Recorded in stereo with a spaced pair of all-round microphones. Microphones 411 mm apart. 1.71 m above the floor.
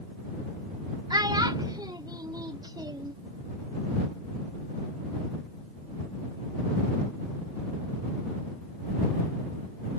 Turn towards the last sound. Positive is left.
turn(degrees=-10)  # may be behind; listen again after turning